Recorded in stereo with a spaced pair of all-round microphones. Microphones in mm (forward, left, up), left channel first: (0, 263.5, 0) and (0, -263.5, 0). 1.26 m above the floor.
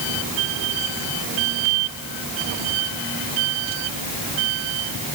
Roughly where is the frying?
No frying in this recording.